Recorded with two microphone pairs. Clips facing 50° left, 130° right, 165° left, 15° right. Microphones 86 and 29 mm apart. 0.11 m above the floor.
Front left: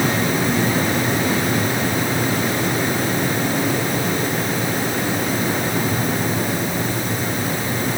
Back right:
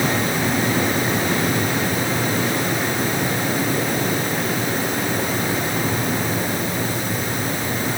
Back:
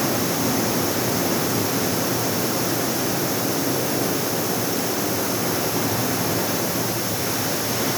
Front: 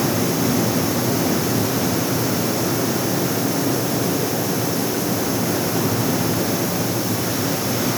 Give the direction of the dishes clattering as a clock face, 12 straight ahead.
I don't hear dishes clattering.